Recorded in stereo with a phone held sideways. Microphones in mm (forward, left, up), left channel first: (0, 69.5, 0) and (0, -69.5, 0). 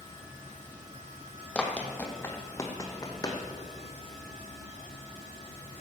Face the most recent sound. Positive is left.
turn(degrees=25)  # may be behind; listen again after turning